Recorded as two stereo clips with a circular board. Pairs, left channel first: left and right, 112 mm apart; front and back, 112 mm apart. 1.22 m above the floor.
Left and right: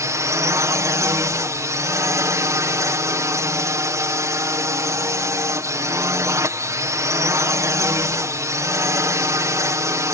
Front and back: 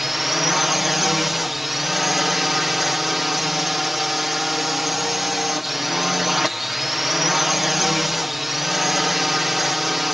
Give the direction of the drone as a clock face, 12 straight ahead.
3 o'clock.